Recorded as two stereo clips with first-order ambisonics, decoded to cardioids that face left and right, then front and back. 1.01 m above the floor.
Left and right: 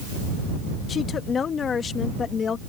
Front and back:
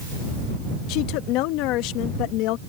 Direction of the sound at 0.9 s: 25° left.